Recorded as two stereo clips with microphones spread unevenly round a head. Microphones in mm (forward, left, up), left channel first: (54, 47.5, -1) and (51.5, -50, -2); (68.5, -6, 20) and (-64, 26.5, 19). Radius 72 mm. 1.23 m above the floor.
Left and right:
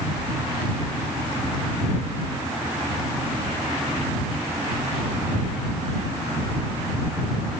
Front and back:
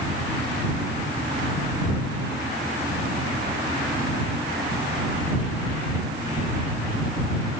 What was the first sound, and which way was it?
Only background noise.